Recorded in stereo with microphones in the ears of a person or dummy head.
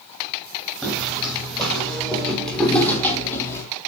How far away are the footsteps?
About 4.5 m.